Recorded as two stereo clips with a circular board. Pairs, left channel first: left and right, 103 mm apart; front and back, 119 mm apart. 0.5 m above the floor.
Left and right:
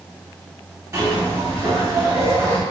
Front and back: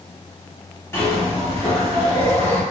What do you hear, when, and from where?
0.9 s a zipper: 55° right, 1.5 m